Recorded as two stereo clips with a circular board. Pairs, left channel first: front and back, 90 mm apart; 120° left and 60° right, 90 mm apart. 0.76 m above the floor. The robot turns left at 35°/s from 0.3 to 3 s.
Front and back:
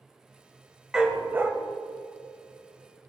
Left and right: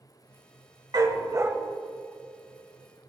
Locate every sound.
0.9 s a dog barking: 100° right, 1.0 m; by 1.5 s 115° right, 1.0 m